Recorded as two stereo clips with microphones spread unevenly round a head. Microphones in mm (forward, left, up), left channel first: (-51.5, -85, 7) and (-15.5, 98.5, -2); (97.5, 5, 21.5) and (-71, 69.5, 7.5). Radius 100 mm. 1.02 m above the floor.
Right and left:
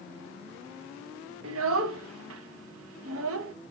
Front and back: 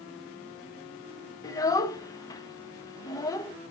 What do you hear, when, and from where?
1.4 s a child speaking: 50° left, 0.5 m